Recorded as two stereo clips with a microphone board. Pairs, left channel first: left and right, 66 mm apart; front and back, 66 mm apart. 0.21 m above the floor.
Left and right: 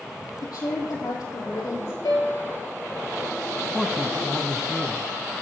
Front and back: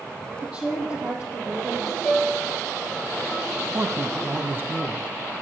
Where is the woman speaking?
110° left, 7 m.